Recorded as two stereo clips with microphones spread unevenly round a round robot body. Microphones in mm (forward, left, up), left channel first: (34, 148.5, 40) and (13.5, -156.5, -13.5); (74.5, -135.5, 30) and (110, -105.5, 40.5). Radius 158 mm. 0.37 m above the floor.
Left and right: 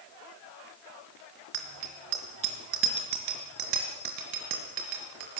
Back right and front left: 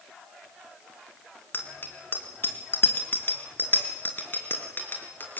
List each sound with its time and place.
1.5 s a bicycle bell: 100° right, 3.5 m; by 5.4 s 95° right, 5.5 m